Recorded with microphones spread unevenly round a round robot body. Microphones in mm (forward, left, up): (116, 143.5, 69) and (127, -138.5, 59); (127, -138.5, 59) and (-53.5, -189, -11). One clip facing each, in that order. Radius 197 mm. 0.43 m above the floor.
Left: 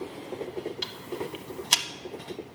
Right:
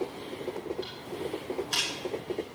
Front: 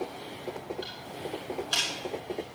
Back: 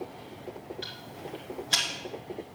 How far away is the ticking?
About 0.6 m.